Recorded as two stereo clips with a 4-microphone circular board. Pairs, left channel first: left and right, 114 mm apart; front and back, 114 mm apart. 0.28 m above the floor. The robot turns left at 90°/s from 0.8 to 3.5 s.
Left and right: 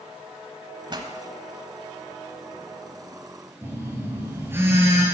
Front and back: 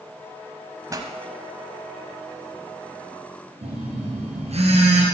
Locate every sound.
0.9 s a pop: 125° right, 0.9 m; by 1.1 s 145° right, 0.9 m
3.6 s a phone buzzing: 160° right, 2.5 m